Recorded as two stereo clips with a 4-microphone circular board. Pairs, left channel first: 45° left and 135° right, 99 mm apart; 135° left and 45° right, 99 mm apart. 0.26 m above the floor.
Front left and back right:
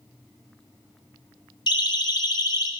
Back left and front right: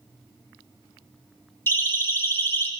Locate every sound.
1.7 s a siren: 70° left, 2.5 m; by 2.7 s 75° left, 2 m